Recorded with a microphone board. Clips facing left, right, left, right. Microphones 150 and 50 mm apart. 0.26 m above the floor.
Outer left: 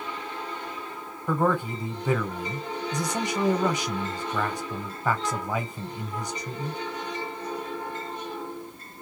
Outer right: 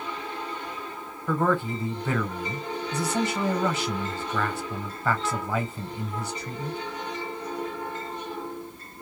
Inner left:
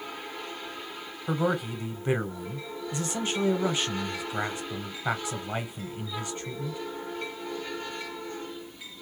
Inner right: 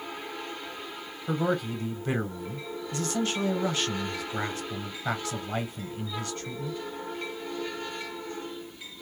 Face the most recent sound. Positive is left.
turn(degrees=15)  # may be behind; listen again after turning